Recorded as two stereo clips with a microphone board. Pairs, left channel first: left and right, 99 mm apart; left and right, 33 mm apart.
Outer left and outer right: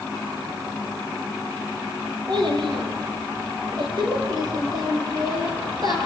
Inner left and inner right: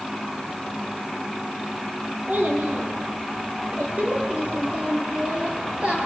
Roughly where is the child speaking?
Right.